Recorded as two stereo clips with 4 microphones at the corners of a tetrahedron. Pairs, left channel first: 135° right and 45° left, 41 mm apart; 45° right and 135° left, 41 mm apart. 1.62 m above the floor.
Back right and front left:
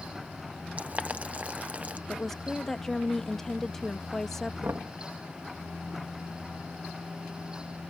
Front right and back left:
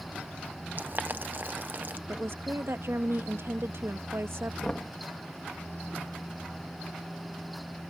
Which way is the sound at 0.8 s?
95° left.